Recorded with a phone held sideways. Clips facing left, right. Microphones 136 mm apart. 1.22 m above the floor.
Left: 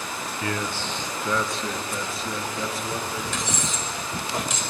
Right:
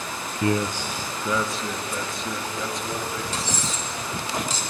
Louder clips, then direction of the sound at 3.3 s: Even; 35° right (ahead or behind).